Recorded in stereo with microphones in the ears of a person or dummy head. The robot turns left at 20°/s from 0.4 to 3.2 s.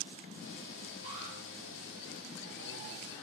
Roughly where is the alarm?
Right.